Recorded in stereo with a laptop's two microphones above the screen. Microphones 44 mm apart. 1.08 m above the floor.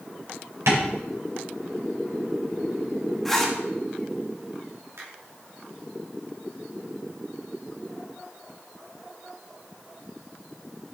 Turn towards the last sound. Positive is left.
turn(degrees=-80)